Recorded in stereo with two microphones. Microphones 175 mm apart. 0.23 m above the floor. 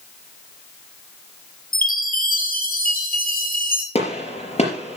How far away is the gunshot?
About 4.5 m.